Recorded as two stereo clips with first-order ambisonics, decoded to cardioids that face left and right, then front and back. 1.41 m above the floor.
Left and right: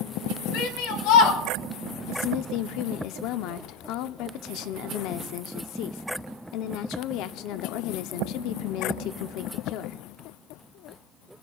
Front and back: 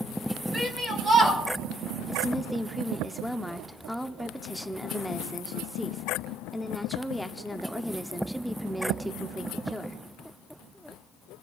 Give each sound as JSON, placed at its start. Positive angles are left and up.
{"t": 0.5, "sound": "a shout", "azimuth_deg": 100, "distance_m": 2.5}
{"t": 2.1, "sound": "a woman speaking", "azimuth_deg": 85, "distance_m": 0.6}